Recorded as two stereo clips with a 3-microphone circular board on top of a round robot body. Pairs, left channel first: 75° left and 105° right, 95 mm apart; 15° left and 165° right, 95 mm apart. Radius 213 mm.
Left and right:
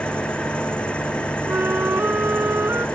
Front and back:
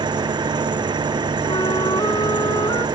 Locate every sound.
0.0 s an engine running: 155° left
1.5 s a flute: 35° right